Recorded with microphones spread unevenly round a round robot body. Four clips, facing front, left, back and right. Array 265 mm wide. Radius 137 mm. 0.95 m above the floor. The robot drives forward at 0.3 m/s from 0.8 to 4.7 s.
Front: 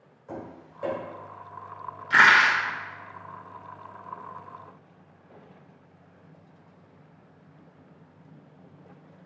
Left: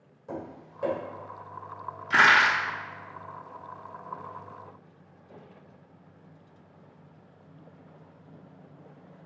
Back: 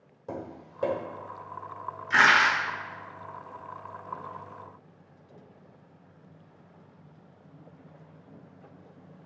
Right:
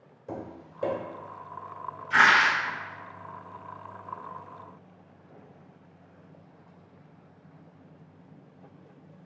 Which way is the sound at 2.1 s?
80° left.